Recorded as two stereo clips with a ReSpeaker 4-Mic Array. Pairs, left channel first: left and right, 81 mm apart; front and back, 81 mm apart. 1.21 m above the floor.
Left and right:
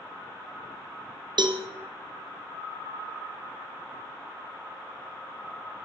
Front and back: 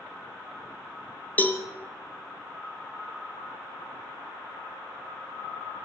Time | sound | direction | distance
1.4 | a cowbell | 70° right | 0.5 m